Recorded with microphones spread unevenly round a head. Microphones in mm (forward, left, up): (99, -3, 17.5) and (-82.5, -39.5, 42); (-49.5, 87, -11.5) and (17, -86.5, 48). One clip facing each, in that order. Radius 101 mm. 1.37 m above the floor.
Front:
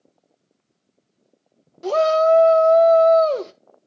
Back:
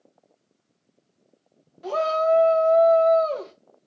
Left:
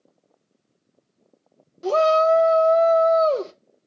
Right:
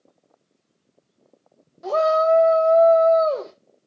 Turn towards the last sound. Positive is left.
turn(degrees=55)